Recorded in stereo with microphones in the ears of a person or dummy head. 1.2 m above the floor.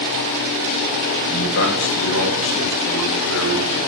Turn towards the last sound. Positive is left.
turn(degrees=80)